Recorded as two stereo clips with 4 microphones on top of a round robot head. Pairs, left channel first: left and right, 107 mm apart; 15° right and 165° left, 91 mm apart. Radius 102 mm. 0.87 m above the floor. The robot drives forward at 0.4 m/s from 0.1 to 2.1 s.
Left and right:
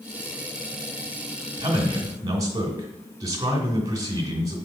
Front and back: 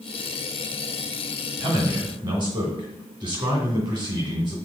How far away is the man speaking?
About 1.9 m.